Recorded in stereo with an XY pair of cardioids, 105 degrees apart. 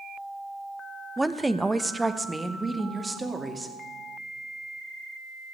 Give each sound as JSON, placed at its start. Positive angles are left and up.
{"t": 1.2, "sound": "a woman speaking", "azimuth_deg": -5, "distance_m": 0.6}